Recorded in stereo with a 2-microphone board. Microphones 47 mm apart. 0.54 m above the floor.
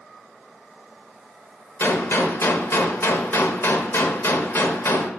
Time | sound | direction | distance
1.8 | a gunshot | 65° left (ahead or behind) | 0.9 m